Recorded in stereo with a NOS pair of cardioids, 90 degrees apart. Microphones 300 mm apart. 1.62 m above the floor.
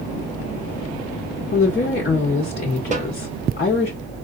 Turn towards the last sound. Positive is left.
turn(degrees=-25)